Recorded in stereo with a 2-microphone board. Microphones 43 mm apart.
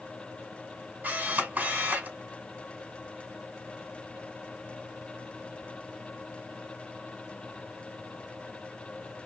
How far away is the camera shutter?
About 2.5 m.